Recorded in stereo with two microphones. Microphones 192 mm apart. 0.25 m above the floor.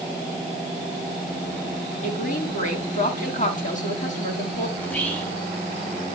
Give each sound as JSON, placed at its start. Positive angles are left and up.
{"t": 2.0, "sound": "a woman speaking", "side_deg": 45, "distance_m": 2.5}
{"t": 4.8, "sound": "whispering", "side_deg": 10, "distance_m": 2.0}